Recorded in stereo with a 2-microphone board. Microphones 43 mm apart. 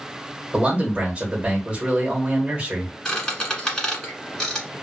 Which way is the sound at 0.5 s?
25° right (ahead or behind).